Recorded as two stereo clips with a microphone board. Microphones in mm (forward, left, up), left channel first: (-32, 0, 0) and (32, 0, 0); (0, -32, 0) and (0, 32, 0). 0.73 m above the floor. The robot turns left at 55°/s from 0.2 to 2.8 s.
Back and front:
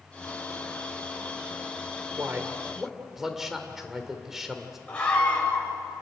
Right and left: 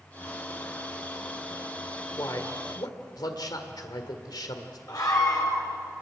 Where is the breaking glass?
No breaking glass in this recording.